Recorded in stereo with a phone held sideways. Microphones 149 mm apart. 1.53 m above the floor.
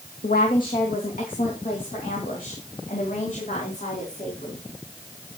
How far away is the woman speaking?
About 2 m.